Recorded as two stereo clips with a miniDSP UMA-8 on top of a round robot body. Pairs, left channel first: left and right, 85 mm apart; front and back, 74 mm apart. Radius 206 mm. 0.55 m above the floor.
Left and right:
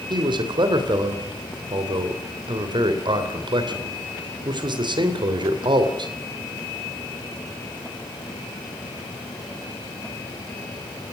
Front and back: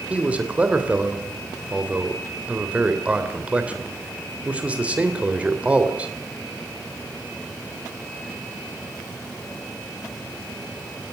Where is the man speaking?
110° right, 3 m.